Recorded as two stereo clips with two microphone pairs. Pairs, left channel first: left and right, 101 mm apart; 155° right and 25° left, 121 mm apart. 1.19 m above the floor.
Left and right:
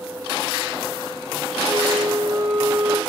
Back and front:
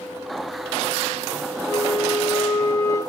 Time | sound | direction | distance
1.7 | a flute | 105° right | 0.9 m